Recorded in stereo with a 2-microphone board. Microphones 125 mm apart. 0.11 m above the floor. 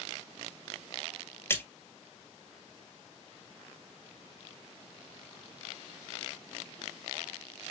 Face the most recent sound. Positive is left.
turn(degrees=20)  # may be behind; listen again after turning